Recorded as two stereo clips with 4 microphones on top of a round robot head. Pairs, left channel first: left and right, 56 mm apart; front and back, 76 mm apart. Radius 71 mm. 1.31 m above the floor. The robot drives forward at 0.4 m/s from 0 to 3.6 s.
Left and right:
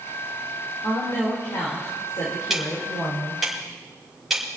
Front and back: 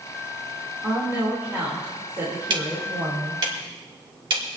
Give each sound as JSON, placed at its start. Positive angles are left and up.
{"t": 0.8, "sound": "a woman speaking", "azimuth_deg": 115, "distance_m": 4.0}
{"t": 2.5, "sound": "ticking", "azimuth_deg": -175, "distance_m": 1.9}